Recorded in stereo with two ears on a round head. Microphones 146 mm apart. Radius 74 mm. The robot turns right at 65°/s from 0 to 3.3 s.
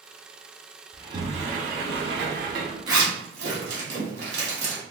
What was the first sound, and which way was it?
A sliding door, 165° right.